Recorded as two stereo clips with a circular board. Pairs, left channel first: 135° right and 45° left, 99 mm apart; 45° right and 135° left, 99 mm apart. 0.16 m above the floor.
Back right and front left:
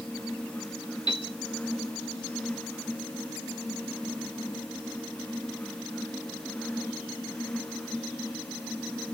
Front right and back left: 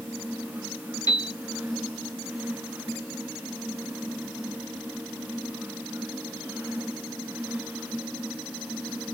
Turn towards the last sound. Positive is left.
turn(degrees=-95)